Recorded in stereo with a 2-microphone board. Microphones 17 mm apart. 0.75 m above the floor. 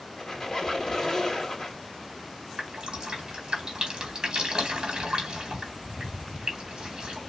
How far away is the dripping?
About 1.7 m.